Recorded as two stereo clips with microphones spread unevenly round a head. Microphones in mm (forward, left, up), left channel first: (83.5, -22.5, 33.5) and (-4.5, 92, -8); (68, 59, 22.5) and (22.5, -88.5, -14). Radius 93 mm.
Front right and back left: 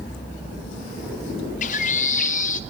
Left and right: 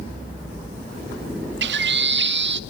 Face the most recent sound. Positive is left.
turn(degrees=-95)